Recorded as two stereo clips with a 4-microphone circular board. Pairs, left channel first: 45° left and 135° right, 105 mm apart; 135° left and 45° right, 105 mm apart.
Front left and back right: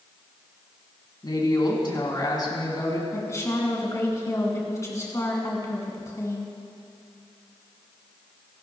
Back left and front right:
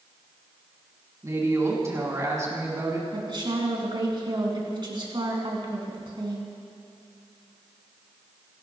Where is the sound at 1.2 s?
10° left, 2.5 m.